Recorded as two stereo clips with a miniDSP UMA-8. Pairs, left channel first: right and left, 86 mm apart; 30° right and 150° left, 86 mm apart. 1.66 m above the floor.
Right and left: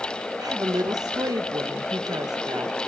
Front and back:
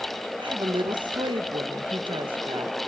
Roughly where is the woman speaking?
Behind left.